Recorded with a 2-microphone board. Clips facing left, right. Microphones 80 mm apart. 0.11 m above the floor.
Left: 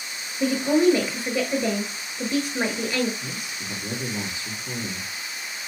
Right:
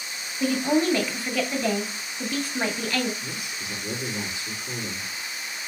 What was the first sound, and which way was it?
A woman speaking, 20° left (ahead or behind).